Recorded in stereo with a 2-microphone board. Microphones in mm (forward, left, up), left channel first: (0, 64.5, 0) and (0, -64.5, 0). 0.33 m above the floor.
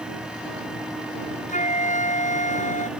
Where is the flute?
65° left (ahead or behind).